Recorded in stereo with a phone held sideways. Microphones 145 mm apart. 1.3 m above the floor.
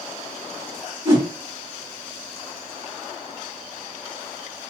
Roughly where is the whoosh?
Right.